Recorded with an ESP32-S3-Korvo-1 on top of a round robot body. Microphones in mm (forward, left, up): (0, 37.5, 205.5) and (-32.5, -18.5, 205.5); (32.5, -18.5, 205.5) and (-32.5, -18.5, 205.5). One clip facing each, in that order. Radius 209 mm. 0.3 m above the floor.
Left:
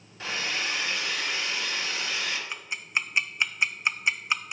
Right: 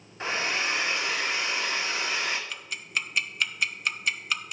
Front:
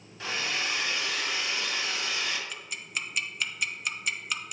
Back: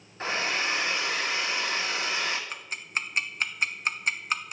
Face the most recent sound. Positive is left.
turn(degrees=130)